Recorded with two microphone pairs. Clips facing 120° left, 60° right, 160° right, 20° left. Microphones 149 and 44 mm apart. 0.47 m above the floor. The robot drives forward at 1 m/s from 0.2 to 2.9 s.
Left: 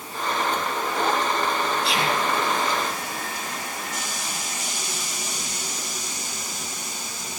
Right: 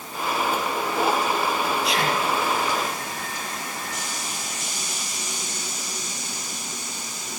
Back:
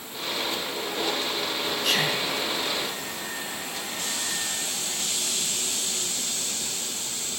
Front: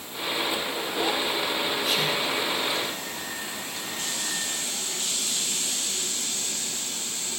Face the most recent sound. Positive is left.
turn(degrees=180)